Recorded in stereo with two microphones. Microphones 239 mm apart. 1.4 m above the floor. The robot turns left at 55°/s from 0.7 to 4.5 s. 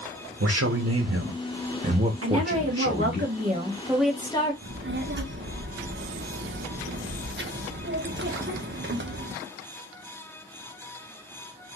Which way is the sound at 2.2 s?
80° right.